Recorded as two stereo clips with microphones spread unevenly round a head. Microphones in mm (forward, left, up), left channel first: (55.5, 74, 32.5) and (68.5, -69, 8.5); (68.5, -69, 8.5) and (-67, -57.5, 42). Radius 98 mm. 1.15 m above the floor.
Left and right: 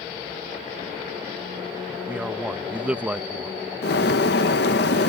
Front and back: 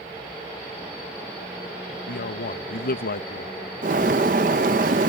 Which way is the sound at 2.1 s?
5° right.